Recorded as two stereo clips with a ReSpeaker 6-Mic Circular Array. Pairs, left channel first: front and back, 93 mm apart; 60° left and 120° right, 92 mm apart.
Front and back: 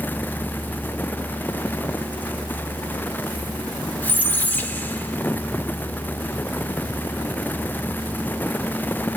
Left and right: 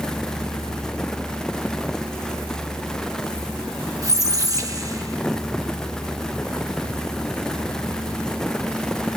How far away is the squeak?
About 0.9 m.